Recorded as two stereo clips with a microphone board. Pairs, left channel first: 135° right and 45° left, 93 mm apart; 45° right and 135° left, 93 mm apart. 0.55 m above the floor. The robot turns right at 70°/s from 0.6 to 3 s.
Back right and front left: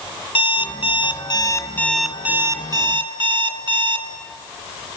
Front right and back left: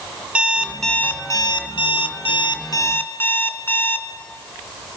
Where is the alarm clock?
145° right, 2.5 m; by 4.1 s 20° left, 2.5 m.